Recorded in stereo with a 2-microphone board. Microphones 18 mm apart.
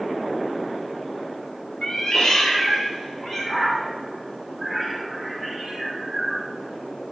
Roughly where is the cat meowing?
Left.